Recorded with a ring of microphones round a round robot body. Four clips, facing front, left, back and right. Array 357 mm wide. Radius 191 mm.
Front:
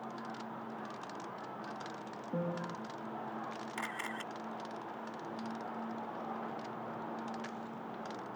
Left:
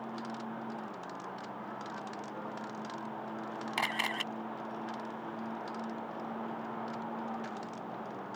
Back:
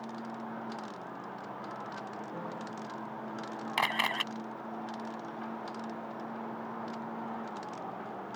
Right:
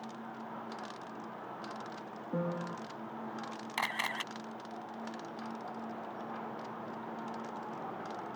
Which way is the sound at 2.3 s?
60° right.